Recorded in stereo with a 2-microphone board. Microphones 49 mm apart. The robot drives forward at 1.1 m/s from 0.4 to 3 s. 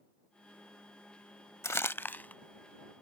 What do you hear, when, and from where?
1.6 s crumpling: 80° left; by 2.4 s 35° left (ahead or behind)